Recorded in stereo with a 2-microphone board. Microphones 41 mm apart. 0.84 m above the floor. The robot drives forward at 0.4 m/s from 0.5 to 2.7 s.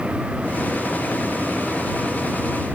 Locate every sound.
Only background noise.